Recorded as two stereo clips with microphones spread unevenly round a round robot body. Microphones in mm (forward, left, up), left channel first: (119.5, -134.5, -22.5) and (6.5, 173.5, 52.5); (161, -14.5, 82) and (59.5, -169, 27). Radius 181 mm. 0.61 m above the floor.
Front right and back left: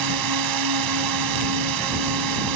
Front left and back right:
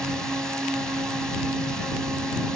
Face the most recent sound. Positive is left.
turn(degrees=150)